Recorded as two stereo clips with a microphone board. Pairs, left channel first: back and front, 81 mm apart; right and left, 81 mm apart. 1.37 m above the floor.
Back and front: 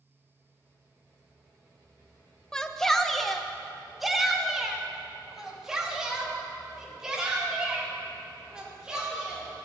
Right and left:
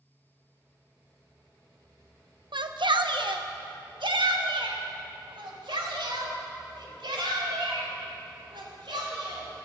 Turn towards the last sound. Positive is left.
turn(degrees=80)